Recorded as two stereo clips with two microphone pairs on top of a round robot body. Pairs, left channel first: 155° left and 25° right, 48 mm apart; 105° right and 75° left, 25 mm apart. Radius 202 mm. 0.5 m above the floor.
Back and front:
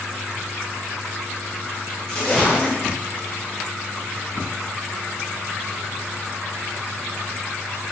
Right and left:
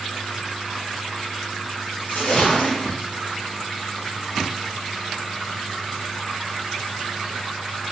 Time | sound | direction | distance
2.1 | a splash | 125° right | 0.8 m